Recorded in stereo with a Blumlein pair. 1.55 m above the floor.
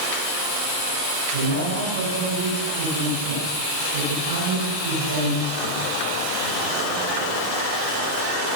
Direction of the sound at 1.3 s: 65° right.